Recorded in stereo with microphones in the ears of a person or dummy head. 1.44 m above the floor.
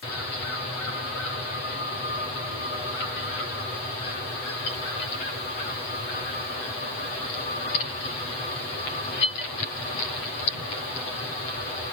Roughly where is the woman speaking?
No woman speaking in this recording.